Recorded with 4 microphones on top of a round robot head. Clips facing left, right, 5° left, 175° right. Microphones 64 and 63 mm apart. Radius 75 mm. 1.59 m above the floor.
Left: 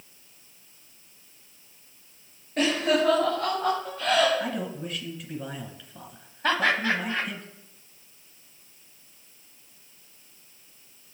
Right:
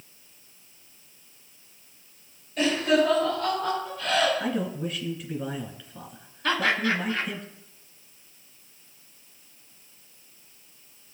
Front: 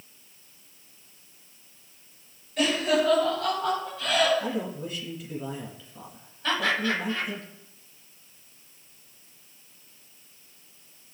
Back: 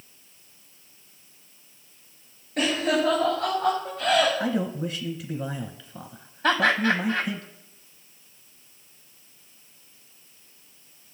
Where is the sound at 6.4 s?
150° left, 2.5 m.